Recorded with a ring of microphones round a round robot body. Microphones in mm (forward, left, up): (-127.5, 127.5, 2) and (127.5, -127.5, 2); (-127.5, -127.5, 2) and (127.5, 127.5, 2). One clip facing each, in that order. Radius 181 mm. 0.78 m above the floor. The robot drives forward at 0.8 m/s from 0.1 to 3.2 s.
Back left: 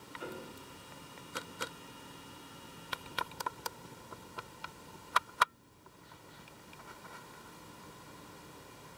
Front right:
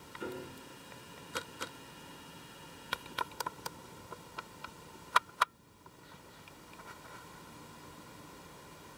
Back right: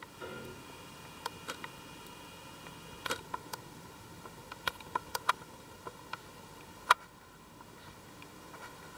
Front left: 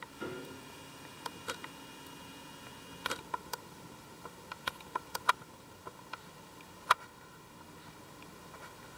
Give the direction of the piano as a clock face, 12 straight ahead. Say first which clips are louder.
Front right 3 dB, front left 3 dB; 12 o'clock.